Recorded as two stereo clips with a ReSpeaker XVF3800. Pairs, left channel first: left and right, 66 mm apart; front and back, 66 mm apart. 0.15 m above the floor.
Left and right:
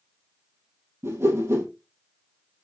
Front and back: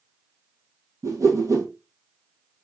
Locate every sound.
1.0 s a whoosh: 140° right, 1.8 m